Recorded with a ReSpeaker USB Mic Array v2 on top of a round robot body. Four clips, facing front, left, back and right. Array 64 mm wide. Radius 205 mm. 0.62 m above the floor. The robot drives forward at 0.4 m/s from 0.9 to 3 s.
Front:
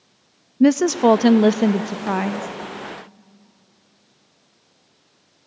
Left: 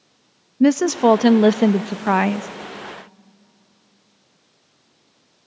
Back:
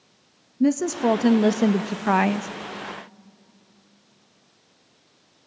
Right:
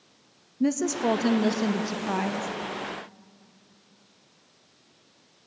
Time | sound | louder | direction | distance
0.6 | a woman speaking | left 10 dB, front 6 dB | 50° left | 0.8 m